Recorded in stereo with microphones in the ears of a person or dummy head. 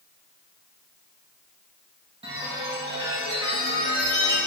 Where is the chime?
20° right (ahead or behind), 1.7 m.